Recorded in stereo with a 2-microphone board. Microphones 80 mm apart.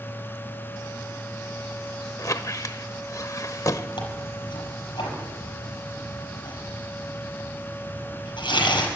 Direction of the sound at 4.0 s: 85° left.